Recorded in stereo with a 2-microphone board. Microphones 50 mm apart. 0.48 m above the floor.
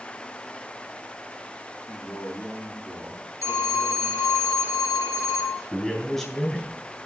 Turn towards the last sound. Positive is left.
turn(degrees=10)  # may be behind; listen again after turning